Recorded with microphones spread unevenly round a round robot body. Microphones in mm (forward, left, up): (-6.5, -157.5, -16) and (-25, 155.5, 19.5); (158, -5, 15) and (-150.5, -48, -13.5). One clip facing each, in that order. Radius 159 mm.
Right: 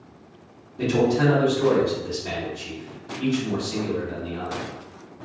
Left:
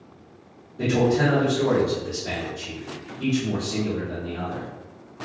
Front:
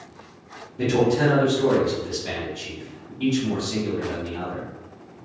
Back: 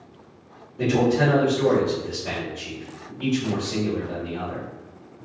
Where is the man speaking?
45° right, 1.0 m.